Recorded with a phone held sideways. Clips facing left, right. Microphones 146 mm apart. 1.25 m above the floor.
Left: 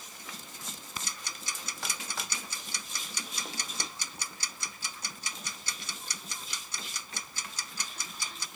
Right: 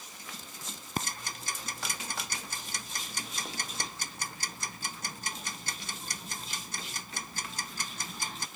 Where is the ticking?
55° right (ahead or behind).